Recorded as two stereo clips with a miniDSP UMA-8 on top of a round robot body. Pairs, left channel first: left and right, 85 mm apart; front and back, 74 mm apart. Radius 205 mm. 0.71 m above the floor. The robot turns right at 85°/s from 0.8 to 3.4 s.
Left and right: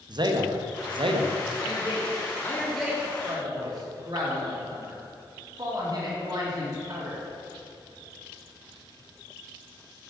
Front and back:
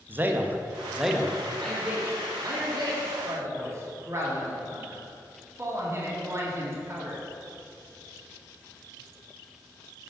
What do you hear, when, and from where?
0.1 s a man speaking: 120° right, 0.8 m; by 1.4 s 70° right, 0.8 m
1.6 s a man speaking: 75° left, 2 m; by 7.2 s 130° right, 2 m